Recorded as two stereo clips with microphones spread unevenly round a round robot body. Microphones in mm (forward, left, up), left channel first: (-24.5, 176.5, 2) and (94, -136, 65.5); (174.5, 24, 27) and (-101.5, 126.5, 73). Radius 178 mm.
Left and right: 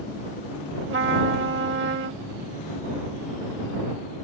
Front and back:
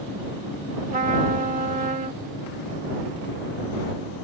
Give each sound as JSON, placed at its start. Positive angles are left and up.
{"t": 0.9, "sound": "a trumpet", "azimuth_deg": -130}